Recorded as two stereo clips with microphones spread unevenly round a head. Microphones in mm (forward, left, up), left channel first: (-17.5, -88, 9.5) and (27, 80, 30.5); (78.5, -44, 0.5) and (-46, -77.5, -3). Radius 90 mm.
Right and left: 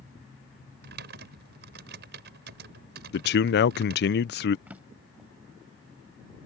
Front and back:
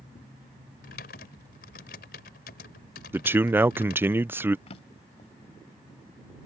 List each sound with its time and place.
0.8 s typing on a keyboard: 45° left
3.1 s a man speaking: 90° right
4.7 s a drawer: straight ahead